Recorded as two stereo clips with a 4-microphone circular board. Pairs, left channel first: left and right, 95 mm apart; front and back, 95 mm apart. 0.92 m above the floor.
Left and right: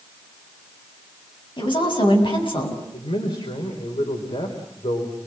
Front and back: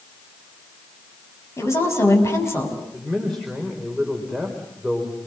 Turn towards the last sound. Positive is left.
turn(degrees=90)